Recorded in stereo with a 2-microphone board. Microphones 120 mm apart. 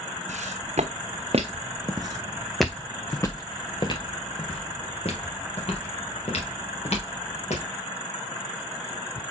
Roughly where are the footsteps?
Right.